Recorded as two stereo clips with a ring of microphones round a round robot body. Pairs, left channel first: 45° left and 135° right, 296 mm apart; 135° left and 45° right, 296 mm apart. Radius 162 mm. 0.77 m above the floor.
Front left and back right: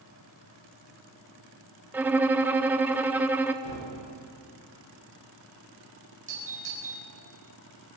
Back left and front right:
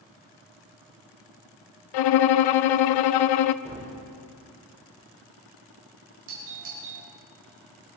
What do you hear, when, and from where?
1.9 s a violin: 140° left, 0.5 m
3.6 s a gunshot: 50° left, 6 m
6.3 s a doorbell: 70° right, 5.5 m